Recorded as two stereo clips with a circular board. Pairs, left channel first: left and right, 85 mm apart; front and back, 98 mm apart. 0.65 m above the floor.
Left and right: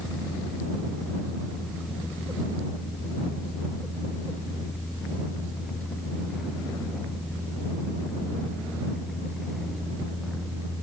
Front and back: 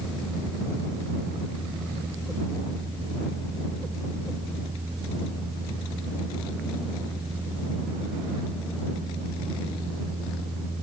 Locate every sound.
Only background noise.